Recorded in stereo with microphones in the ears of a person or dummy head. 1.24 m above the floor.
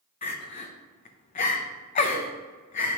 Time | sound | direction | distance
0.2 | crying | 40° left (ahead or behind) | 0.6 m